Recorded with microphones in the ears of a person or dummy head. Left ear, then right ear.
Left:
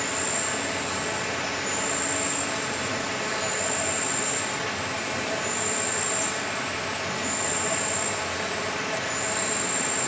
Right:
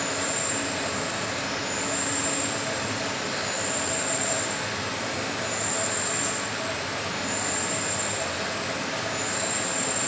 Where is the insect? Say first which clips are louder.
Even; 50° left (ahead or behind), 3 m.